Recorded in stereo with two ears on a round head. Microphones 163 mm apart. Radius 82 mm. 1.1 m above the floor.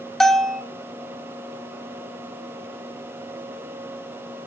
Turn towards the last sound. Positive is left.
turn(degrees=0)  # may be behind; listen again after turning